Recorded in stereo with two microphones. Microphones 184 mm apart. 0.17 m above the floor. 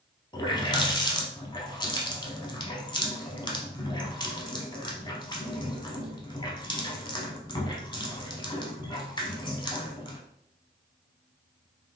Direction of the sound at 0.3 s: 25° left (ahead or behind).